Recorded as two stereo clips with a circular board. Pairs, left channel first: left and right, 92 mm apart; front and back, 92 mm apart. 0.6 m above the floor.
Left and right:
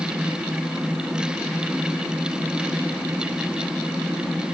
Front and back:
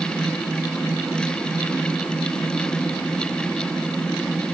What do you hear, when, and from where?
Only background noise.